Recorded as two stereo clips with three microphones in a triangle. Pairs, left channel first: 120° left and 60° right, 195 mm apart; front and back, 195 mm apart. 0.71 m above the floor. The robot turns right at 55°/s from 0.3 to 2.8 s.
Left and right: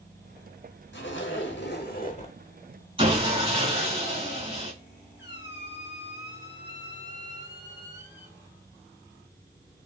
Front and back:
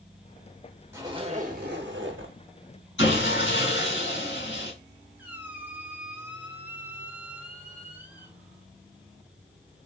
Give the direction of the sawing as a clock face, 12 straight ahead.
12 o'clock.